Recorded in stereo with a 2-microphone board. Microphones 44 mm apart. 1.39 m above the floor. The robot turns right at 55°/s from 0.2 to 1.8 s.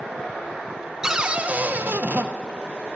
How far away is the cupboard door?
About 0.6 m.